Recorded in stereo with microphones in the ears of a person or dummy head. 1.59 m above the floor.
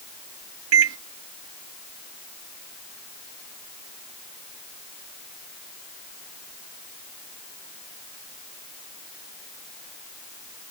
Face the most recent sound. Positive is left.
turn(degrees=-75)  # may be behind; listen again after turning